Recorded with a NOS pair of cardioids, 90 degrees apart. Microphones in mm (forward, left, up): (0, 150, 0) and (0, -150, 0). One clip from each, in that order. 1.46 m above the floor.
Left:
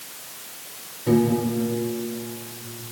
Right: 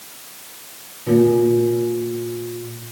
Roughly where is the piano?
Ahead.